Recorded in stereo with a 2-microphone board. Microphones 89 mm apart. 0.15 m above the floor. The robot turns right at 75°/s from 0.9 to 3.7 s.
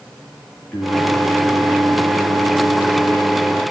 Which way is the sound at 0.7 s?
170° left.